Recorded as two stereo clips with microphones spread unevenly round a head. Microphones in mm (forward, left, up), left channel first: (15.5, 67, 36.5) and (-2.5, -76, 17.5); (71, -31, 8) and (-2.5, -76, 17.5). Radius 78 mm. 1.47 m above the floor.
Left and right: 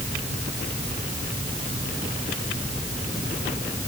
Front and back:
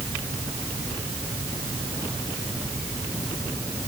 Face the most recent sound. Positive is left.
No sound to turn to.